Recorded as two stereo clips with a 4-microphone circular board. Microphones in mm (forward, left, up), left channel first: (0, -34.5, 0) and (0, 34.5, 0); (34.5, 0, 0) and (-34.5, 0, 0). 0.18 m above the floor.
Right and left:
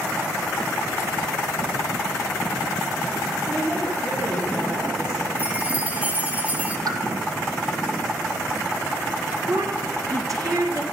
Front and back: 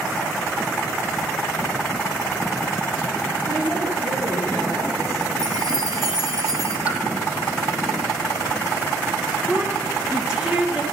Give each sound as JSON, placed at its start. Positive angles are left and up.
{"t": 3.5, "sound": "a woman speaking", "azimuth_deg": 170, "distance_m": 4.0}
{"t": 5.4, "sound": "a chime", "azimuth_deg": 160, "distance_m": 1.3}
{"t": 6.9, "sound": "a pop", "azimuth_deg": 110, "distance_m": 1.3}
{"t": 9.5, "sound": "a woman speaking", "azimuth_deg": 105, "distance_m": 1.9}